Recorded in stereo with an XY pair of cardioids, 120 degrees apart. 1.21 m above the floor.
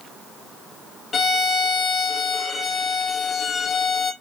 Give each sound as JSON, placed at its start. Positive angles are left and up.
{"t": 1.1, "sound": "a violin", "azimuth_deg": 35, "distance_m": 1.6}